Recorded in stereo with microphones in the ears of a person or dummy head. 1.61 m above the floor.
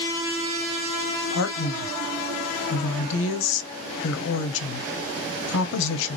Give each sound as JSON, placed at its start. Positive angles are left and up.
{"t": 1.3, "sound": "a man speaking", "side_deg": 75, "distance_m": 0.7}